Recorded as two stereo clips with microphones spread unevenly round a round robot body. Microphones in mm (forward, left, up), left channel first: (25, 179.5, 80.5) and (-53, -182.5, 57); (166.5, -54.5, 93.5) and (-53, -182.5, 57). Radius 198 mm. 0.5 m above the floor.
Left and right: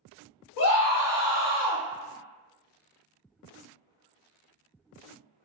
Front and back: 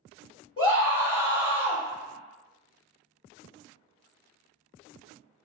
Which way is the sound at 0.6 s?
105° left.